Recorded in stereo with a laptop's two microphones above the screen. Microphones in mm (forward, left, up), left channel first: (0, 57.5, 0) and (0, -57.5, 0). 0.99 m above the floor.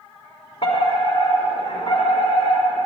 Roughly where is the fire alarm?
Left.